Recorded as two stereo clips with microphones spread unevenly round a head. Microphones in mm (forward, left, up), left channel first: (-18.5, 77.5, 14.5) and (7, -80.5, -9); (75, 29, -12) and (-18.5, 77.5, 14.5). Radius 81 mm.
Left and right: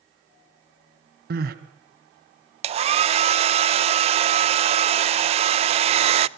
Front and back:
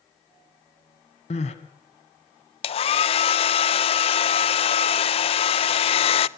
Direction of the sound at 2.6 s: 35° right.